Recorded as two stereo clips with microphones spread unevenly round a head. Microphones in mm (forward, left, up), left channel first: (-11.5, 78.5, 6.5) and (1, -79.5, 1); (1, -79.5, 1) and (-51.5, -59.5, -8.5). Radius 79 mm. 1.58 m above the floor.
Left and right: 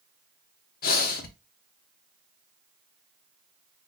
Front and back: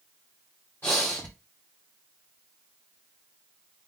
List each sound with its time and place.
0.8 s breathing: 60° left, 0.8 m